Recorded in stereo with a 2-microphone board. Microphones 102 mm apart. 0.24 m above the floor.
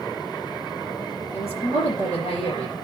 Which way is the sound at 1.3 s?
80° left.